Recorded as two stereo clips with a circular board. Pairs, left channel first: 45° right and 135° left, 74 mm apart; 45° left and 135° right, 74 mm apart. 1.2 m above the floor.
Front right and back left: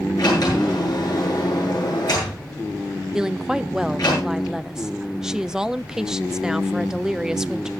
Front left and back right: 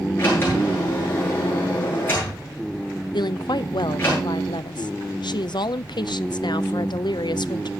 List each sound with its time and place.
0.2 s a sliding door: 15° right, 8.5 m
3.1 s a woman speaking: 55° left, 0.6 m